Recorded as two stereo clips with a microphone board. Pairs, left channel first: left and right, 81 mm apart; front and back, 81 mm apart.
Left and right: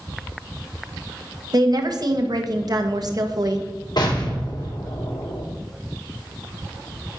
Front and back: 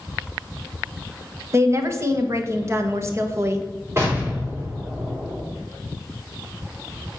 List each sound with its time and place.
1.5 s a woman speaking: 125° right, 1.3 m
4.0 s an explosion: 120° left, 3 m